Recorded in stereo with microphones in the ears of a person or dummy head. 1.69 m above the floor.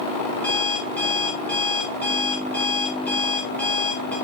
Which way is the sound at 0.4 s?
15° left (ahead or behind).